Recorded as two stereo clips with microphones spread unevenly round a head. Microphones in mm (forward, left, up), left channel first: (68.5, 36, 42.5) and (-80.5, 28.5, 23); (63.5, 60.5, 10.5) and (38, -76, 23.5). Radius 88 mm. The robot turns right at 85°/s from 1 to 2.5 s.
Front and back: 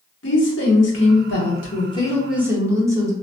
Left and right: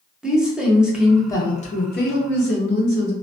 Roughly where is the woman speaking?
Ahead.